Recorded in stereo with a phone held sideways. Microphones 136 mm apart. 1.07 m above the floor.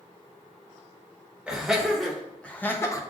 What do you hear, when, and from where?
1.5 s laughter: 5° right (ahead or behind), 1.4 m; by 3.0 s 25° left (ahead or behind), 0.7 m